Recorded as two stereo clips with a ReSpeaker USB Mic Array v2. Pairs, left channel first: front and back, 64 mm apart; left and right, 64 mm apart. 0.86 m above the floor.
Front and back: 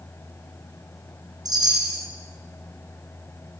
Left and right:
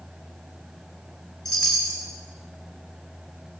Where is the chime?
170° left, 8 m.